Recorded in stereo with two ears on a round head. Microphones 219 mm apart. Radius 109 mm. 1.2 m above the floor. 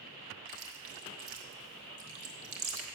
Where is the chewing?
60° right (ahead or behind), 1.3 m.